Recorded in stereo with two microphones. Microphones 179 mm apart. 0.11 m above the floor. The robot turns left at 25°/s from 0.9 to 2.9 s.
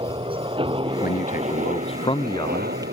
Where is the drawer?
No drawer in this recording.